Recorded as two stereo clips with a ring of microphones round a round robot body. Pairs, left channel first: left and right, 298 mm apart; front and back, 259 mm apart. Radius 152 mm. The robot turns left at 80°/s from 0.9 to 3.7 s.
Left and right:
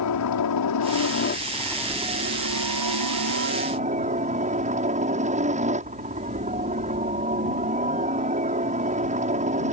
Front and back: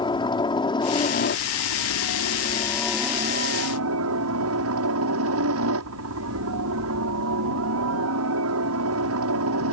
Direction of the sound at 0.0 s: 70° left.